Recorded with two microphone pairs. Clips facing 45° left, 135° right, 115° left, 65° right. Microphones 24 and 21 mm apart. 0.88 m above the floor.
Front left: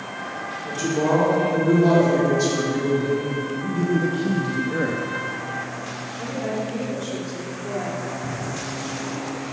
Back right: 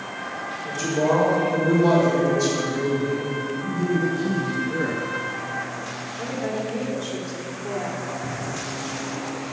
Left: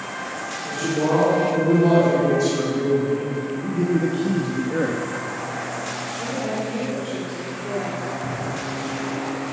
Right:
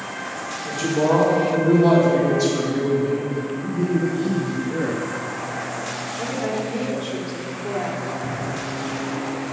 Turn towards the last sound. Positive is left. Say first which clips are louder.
# even, even
turn(degrees=135)